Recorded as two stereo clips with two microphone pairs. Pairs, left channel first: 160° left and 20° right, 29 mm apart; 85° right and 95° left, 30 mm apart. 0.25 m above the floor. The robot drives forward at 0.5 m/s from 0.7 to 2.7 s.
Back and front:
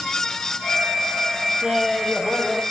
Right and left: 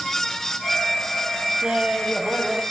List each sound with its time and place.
1.6 s laughter: 45° left, 1.3 m; by 2.6 s 95° left, 1.2 m